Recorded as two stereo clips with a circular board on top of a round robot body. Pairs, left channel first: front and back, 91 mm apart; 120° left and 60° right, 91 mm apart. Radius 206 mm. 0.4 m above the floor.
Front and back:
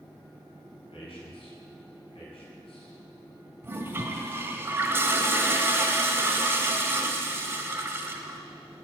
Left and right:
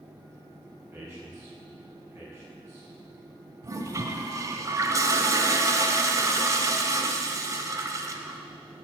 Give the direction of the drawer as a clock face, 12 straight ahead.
No drawer in this recording.